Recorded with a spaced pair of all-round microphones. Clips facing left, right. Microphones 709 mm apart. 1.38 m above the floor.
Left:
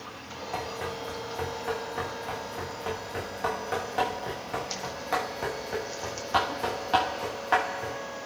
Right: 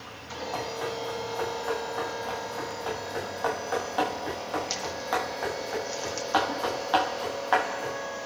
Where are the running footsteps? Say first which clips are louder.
Right 2 dB; 50° left (ahead or behind), 8.5 m; by 8.0 s 55° left (ahead or behind), 12.5 m.